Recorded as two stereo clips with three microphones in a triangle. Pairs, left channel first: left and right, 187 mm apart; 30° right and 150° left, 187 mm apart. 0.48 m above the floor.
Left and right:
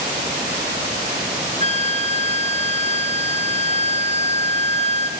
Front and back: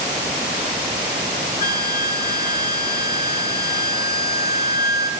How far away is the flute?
About 2.5 m.